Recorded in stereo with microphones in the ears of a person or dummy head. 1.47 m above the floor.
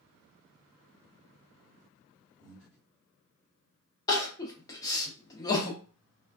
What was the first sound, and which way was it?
Breathing, 5° left (ahead or behind).